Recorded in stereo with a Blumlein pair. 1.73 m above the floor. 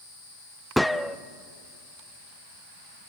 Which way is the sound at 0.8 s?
Straight ahead.